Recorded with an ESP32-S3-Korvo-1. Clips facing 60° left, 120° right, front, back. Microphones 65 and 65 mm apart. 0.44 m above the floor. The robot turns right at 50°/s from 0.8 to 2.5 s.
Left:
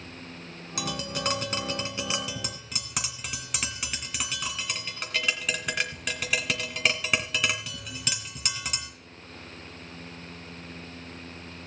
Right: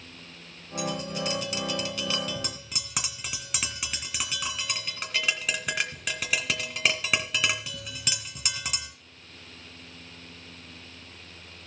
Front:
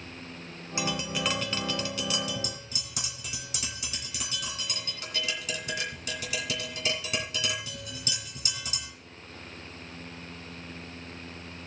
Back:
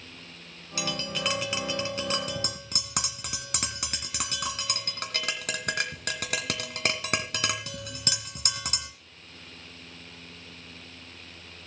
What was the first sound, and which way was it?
Tapping, 65° left.